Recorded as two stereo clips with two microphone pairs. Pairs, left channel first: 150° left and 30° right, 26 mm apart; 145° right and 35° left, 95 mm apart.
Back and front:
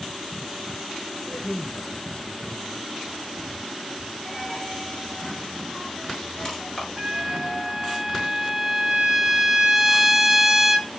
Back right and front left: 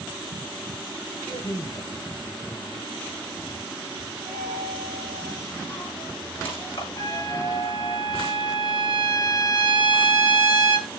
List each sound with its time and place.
1.3 s a man speaking: 160° right, 2.5 m
4.2 s a dropped coin: 140° right, 8.5 m
7.0 s a trumpet: 100° right, 3 m